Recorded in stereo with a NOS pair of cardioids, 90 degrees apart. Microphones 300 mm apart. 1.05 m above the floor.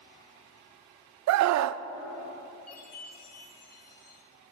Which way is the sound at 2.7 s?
55° left.